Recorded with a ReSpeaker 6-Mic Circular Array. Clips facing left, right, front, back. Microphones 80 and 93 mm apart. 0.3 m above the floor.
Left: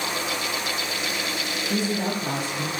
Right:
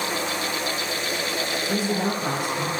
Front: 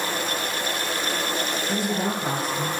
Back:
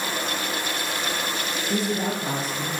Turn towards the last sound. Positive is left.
turn(degrees=-45)